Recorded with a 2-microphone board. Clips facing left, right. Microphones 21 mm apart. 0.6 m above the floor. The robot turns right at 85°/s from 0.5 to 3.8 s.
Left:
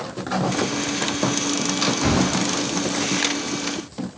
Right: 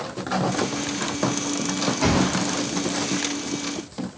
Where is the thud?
70° right (ahead or behind), 2 m; by 2.5 s 55° right (ahead or behind), 2 m.